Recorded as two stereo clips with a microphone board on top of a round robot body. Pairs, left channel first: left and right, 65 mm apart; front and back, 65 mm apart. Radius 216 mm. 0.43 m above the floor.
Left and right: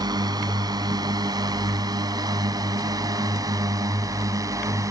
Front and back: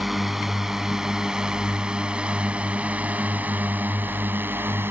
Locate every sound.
0.0 s a drone: 95° right; by 4.9 s 125° right